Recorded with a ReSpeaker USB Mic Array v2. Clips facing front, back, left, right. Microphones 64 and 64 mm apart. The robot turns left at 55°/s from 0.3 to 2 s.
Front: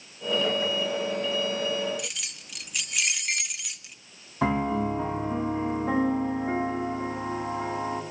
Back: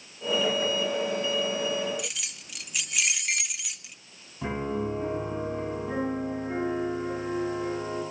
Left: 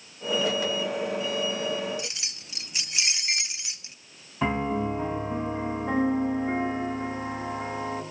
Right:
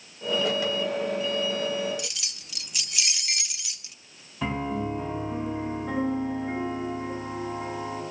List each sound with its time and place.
2.0 s keys jangling: 90° left, 0.7 m
4.4 s a piano: 20° left, 10 m